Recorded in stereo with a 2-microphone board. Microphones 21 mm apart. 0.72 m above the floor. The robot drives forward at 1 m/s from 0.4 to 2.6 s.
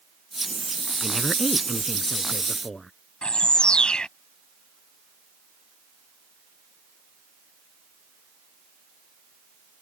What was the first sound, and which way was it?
A woman speaking, 10° left (ahead or behind).